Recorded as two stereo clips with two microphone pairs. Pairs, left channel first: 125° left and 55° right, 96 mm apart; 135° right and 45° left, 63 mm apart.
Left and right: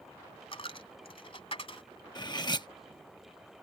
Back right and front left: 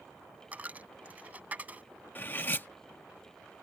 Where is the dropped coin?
110° left.